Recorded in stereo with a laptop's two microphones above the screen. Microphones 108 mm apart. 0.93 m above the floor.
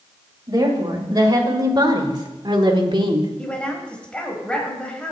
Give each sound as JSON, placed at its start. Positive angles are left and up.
{"t": 0.5, "sound": "a woman speaking", "side_deg": -35, "distance_m": 5.5}
{"t": 3.4, "sound": "a woman speaking", "side_deg": 10, "distance_m": 4.5}